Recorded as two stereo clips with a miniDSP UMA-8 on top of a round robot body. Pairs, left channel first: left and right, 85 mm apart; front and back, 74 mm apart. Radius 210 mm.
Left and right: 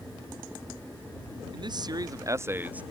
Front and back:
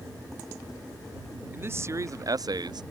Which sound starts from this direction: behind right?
A man speaking, at 1.5 s.